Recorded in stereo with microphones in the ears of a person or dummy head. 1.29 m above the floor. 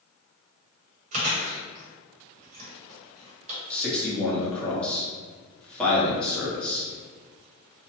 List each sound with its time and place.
1.1 s chewing: 45° right (ahead or behind), 1.3 m
3.7 s a man speaking: centre (ahead or behind), 1.2 m